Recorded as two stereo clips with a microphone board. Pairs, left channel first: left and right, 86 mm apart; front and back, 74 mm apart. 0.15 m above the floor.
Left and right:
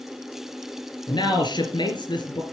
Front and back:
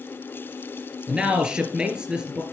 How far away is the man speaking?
About 3.5 m.